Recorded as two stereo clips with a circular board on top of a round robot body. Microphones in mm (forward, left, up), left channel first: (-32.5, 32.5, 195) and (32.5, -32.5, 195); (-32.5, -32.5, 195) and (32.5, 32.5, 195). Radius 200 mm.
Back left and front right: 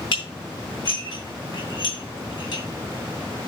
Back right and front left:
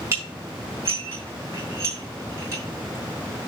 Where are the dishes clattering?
105° left, 4 m.